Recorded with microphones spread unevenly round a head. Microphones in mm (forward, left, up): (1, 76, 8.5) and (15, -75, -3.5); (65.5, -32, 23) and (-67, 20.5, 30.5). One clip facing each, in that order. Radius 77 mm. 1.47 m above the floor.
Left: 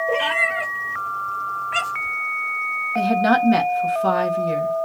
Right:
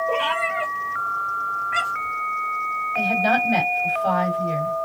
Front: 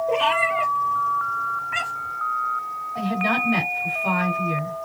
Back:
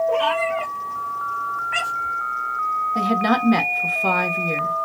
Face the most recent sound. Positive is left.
turn(degrees=130)